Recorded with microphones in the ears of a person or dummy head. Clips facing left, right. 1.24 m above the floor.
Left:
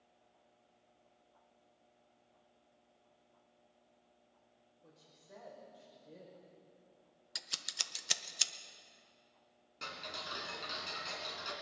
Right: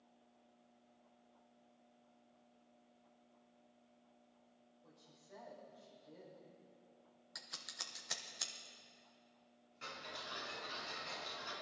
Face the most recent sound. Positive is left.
turn(degrees=75)  # may be behind; listen again after turning